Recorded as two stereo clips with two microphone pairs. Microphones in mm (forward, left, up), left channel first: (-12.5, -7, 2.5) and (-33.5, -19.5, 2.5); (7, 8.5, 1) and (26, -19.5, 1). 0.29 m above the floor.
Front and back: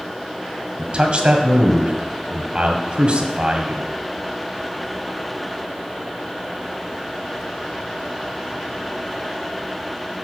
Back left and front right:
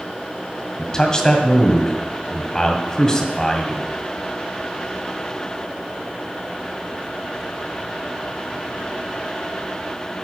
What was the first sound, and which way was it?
A man speaking, 175° right.